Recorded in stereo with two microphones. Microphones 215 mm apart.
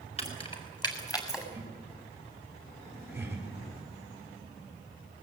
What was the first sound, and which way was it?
Keys jangling, 30° left (ahead or behind).